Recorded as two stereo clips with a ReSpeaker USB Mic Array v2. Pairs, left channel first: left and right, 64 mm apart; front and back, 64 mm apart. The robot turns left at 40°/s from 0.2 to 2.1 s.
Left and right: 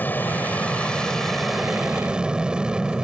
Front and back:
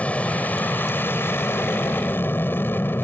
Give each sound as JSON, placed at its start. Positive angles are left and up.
{"t": 0.0, "sound": "an aircraft", "azimuth_deg": 55}